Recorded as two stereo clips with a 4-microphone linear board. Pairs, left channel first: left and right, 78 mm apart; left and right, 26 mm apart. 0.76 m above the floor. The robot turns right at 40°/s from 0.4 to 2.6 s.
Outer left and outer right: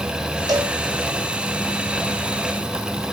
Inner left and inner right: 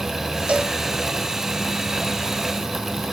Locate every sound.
0.5 s a cowbell: 55° right (ahead or behind), 1.9 m; by 0.8 s 45° right (ahead or behind), 1.9 m